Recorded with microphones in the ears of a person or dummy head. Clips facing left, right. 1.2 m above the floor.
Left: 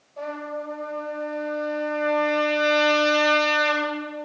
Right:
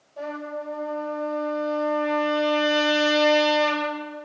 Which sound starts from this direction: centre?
A trumpet, at 0.2 s.